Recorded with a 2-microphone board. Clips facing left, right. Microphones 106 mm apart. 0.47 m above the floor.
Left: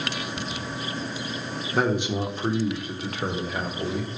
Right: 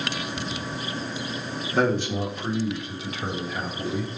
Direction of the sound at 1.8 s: 5° left (ahead or behind).